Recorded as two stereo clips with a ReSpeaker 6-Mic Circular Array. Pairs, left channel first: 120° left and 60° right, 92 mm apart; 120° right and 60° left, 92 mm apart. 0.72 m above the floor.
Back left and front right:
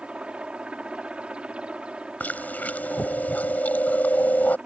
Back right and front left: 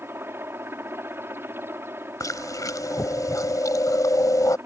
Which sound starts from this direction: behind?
Chewing, at 2.2 s.